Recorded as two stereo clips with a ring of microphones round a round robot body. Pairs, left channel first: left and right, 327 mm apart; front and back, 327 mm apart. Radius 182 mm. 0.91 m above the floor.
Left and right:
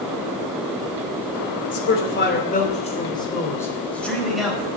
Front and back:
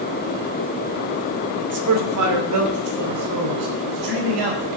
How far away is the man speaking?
About 2.5 m.